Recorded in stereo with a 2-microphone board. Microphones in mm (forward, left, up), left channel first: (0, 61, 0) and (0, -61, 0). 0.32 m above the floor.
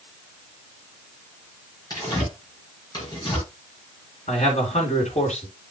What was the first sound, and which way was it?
Tearing paper, 30° left (ahead or behind).